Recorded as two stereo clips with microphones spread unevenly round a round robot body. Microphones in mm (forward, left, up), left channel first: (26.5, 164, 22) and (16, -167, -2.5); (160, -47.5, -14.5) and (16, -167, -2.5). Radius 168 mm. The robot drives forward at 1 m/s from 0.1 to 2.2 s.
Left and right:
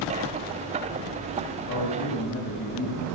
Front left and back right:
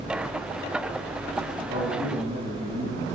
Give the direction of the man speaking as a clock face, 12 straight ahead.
7 o'clock.